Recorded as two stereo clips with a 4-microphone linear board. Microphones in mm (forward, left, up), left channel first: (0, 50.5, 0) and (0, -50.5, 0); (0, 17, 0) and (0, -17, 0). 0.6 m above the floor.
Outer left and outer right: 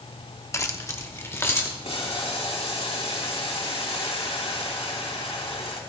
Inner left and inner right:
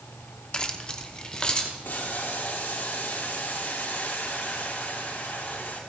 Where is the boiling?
80° left, 3.5 m.